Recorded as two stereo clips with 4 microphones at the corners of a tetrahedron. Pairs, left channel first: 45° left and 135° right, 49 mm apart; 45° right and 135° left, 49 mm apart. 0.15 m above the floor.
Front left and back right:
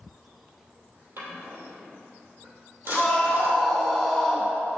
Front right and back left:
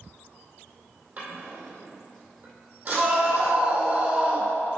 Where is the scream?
115° left, 1.5 m.